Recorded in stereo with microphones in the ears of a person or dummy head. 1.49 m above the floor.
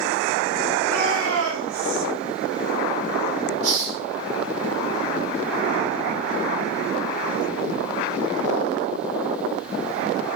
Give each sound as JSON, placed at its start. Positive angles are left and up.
{"t": 0.8, "sound": "a shout", "side_deg": -65, "distance_m": 5.5}
{"t": 3.6, "sound": "a hiss", "side_deg": -65, "distance_m": 2.5}